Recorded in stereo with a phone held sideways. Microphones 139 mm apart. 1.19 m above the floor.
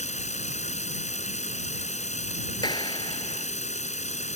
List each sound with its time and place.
0.0 s running water: 55° left (ahead or behind)
2.6 s a clap: 30° left (ahead or behind)